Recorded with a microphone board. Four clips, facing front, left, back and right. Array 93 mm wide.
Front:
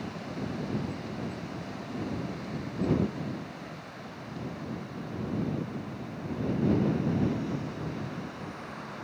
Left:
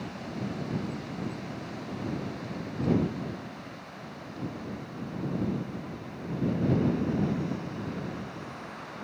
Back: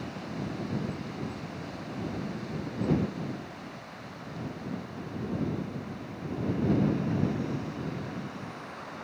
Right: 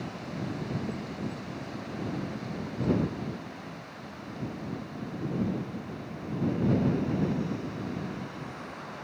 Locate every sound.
Only background noise.